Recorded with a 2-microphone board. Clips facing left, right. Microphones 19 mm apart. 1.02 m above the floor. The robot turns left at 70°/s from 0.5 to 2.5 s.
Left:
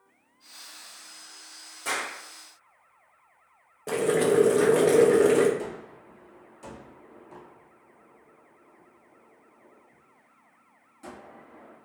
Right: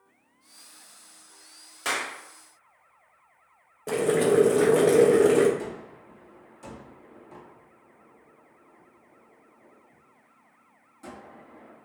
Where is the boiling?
5° left (ahead or behind), 0.5 m.